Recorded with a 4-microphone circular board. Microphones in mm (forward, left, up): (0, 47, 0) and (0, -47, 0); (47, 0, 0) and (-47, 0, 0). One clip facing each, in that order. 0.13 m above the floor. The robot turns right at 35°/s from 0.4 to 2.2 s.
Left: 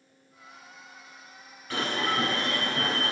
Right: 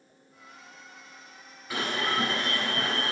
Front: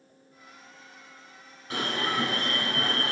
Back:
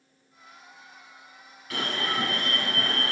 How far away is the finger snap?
I don't hear a finger snap.